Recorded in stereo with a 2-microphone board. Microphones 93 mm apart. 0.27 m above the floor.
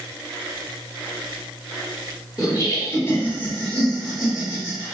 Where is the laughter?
40° left (ahead or behind), 1.6 m; by 5.0 s 20° right (ahead or behind), 1.4 m.